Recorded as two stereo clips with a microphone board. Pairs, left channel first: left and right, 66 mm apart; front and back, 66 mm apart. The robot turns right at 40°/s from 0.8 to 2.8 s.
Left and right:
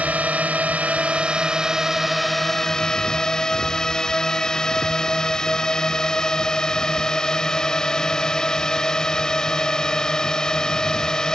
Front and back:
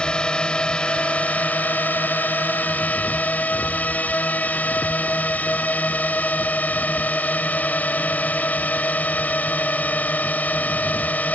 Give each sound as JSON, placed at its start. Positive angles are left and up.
{"t": 0.0, "sound": "a drone", "azimuth_deg": -55}